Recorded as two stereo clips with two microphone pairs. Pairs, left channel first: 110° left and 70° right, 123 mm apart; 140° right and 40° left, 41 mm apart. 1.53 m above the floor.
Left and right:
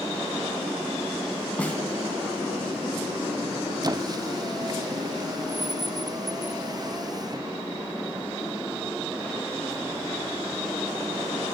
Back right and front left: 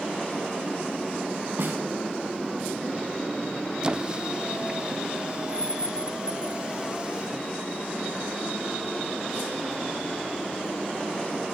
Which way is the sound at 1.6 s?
35° left.